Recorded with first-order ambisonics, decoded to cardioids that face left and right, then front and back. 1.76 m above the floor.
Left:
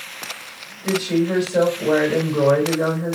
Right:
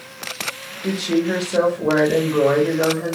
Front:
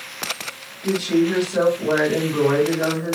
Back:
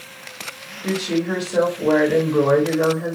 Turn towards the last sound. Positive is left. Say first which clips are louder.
# even, front 3 dB
turn(degrees=-125)